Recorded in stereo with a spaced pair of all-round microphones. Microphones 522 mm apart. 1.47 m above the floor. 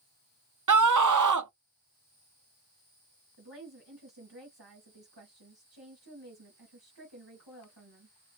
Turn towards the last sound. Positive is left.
turn(degrees=-45)  # may be behind; listen again after turning